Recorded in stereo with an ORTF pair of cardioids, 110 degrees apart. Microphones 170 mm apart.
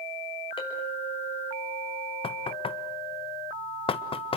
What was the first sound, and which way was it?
A clink, 30° left.